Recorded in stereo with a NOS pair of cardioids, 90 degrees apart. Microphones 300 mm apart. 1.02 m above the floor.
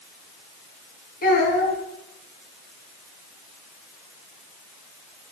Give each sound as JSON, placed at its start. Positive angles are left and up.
{"t": 1.2, "sound": "a child speaking", "azimuth_deg": 30, "distance_m": 5.0}